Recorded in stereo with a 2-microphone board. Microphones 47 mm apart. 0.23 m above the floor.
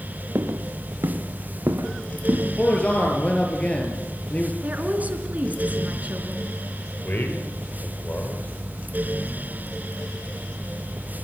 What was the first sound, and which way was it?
Footsteps, 65° right (ahead or behind).